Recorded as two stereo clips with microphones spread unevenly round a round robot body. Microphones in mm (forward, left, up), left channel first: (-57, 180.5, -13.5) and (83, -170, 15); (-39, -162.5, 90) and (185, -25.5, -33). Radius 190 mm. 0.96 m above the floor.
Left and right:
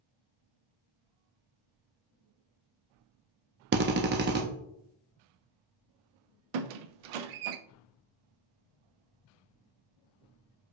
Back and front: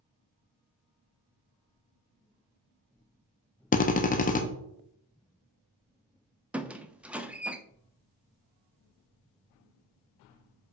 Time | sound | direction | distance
3.7 | a drill | 65° right | 0.6 m
6.5 | a squeak | 50° right | 0.5 m